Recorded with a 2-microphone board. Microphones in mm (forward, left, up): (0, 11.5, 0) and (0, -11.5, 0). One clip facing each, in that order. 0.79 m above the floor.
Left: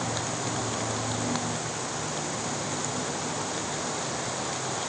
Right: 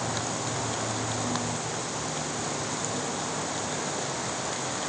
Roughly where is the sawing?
No sawing in this recording.